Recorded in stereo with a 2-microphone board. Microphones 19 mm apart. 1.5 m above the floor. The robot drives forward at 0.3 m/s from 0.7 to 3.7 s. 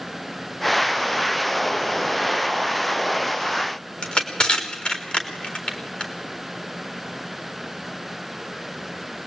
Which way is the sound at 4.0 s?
85° left.